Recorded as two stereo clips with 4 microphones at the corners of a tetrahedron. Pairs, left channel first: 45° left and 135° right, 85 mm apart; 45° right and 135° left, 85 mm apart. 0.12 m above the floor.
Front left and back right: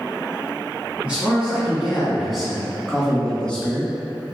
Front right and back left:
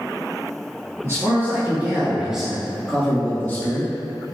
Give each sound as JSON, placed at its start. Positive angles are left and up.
{"t": 1.0, "sound": "a man speaking", "azimuth_deg": 160, "distance_m": 1.4}